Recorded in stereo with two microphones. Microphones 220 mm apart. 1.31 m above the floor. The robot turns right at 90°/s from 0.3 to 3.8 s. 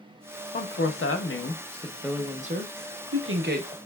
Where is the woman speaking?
40° left, 0.7 m; by 3.8 s 30° right, 0.7 m.